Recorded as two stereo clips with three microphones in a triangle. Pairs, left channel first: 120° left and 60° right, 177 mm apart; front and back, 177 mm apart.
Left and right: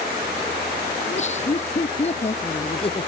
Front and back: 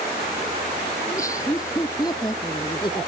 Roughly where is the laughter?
Left.